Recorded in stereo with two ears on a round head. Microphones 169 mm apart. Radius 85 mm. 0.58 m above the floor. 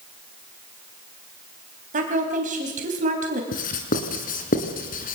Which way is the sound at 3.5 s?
45° left (ahead or behind).